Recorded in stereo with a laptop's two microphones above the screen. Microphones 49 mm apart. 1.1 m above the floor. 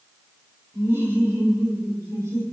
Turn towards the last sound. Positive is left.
turn(degrees=-80)